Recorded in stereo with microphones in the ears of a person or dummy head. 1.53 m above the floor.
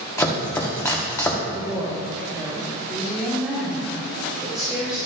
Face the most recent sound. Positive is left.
turn(degrees=-5)  # may be behind; listen again after turning